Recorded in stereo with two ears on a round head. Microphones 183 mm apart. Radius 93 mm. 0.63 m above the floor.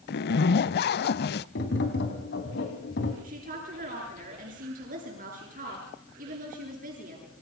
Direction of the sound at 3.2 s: 40° right (ahead or behind).